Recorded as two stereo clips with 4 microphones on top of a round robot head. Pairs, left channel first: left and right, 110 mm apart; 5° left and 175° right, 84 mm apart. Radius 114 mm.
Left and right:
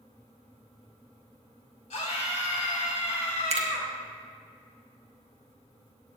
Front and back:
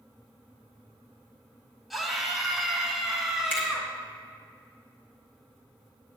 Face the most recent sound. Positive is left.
turn(degrees=-65)